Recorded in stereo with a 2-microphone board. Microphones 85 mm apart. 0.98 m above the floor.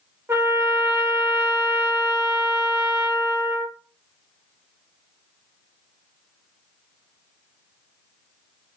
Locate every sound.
0.3 s a trumpet: 25° right (ahead or behind), 1.2 m